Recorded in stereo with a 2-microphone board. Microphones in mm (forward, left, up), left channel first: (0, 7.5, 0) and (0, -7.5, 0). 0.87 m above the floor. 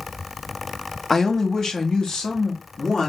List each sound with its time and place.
1.1 s a man speaking: 25° left (ahead or behind), 0.8 m; by 3.1 s 70° left (ahead or behind), 1.5 m